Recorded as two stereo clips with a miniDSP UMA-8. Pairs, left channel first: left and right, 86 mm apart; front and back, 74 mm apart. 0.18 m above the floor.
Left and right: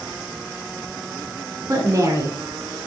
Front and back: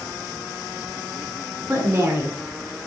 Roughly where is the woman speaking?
Behind right.